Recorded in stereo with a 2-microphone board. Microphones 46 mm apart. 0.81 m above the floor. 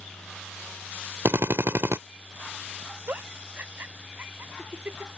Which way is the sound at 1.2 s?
65° right (ahead or behind).